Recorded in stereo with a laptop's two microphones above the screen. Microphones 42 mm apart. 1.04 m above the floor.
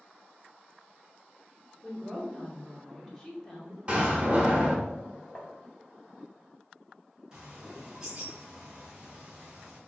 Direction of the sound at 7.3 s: 20° right (ahead or behind).